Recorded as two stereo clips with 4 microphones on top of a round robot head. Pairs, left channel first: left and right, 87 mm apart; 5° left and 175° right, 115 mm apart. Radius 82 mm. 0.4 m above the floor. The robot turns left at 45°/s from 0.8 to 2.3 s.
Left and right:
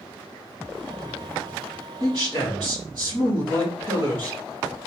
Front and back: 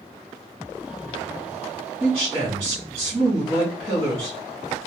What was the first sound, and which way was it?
A man speaking, 105° right.